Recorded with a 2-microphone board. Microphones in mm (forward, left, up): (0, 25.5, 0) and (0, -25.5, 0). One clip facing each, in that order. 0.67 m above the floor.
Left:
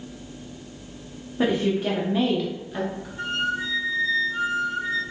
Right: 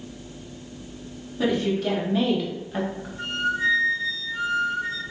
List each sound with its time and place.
1.4 s a woman speaking: 30° left (ahead or behind), 0.9 m; by 3.1 s 20° right (ahead or behind), 1.1 m
3.2 s a flute: 60° left (ahead or behind), 1.8 m